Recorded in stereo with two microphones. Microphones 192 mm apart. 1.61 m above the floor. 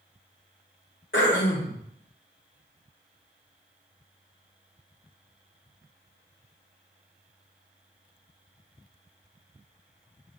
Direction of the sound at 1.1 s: 80° left.